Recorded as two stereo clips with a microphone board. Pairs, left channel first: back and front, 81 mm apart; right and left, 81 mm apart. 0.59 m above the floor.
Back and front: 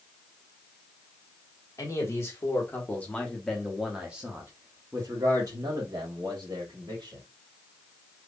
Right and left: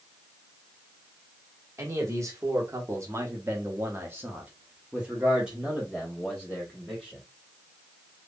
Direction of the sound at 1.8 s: 135° left.